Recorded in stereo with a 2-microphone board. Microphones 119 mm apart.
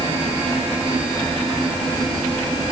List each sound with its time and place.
Only background noise.